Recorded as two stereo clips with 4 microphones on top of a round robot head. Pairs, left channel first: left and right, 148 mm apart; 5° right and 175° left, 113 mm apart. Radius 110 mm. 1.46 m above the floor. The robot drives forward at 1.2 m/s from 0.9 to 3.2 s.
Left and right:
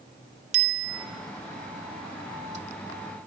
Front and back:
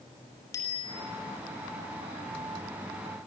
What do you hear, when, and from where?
0.5 s a bicycle bell: 80° right, 2.5 m; by 1.1 s 85° right, 2.5 m